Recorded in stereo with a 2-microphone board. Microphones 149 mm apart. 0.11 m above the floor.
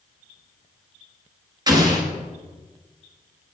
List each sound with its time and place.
1.7 s an explosion: 25° right (ahead or behind), 1.0 m